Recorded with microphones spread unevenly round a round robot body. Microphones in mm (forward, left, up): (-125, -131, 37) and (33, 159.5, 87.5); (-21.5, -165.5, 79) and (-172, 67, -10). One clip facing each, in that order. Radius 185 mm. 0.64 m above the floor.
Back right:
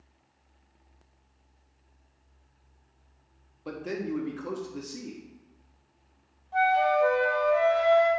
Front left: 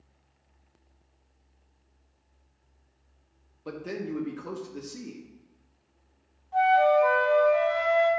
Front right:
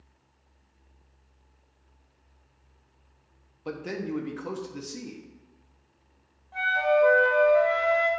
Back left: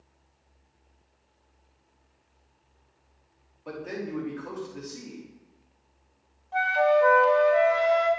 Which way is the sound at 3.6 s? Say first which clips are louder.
Back right 1 dB, front right 2 dB; 45° right.